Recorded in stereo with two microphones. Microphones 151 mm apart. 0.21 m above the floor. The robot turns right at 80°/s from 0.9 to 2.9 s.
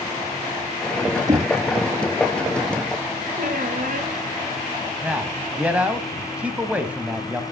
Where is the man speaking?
10° right (ahead or behind), 1.0 m.